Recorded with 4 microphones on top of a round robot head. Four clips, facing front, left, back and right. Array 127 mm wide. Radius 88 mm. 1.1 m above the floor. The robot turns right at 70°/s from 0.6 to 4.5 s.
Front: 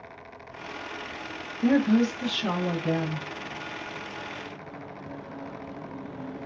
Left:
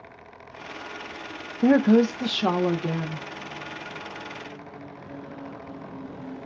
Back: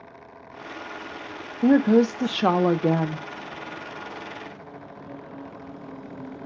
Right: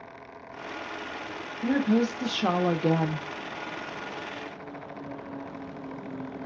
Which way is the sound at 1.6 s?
115° left.